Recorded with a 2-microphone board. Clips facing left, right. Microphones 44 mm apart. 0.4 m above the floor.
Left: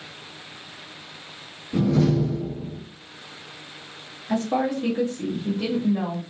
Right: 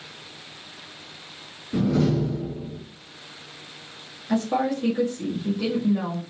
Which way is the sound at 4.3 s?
5° left (ahead or behind).